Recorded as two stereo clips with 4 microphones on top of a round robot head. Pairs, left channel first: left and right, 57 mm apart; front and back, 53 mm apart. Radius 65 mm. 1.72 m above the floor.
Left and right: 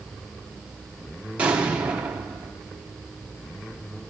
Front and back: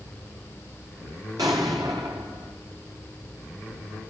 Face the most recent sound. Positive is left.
turn(degrees=-150)